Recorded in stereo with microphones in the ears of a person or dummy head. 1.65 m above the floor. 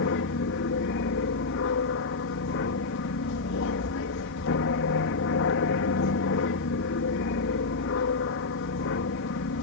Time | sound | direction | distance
0.0 | an aircraft | 60° left (ahead or behind) | ?